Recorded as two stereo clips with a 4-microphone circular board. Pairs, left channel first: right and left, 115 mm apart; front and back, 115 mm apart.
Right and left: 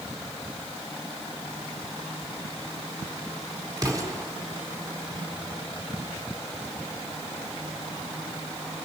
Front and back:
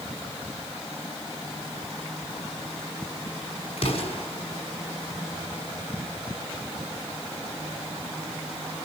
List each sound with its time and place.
3.8 s an explosion: 30° left, 4 m